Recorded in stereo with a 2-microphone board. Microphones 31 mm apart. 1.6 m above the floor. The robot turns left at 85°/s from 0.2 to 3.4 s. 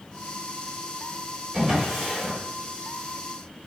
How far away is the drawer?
About 1.9 m.